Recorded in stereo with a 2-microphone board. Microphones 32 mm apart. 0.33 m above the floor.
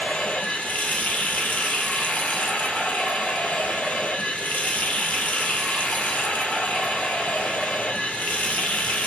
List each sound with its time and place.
0.0 s running water: 60° left (ahead or behind), 0.9 m